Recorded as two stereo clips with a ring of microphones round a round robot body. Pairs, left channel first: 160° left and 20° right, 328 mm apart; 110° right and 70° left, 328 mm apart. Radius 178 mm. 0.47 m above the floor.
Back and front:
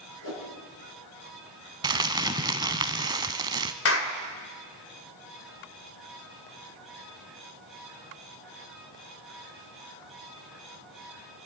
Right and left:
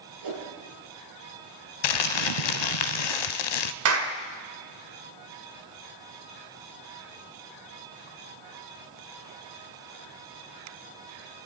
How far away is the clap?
About 1.9 m.